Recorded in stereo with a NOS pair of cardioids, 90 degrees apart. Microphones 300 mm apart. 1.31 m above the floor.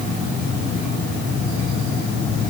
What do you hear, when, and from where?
Only background noise.